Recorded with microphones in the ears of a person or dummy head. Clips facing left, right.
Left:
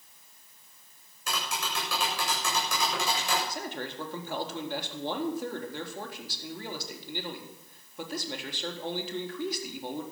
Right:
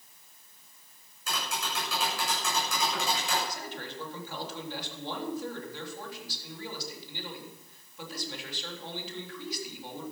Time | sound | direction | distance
1.3 | tapping | 60° left (ahead or behind) | 8 m
3.5 | a man speaking | 45° left (ahead or behind) | 3.5 m